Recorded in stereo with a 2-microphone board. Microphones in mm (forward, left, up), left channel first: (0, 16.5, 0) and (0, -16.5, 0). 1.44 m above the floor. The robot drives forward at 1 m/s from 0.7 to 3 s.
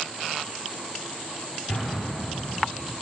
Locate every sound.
1.7 s an explosion: 40° left (ahead or behind), 5.5 m; by 2.5 s 50° left (ahead or behind), 5 m